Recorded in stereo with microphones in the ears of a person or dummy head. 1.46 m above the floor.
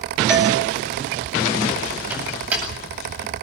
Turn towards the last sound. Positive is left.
turn(degrees=-10)  # may be behind; listen again after turning